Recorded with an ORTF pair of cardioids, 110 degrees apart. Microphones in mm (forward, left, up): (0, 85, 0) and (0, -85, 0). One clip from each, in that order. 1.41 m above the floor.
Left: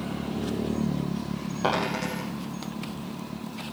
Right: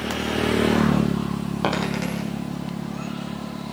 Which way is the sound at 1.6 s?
35° right.